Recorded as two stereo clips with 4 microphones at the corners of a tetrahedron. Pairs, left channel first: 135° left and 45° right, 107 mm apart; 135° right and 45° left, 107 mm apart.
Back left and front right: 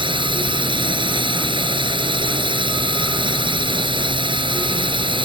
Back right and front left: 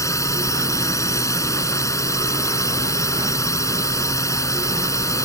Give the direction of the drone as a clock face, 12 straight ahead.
3 o'clock.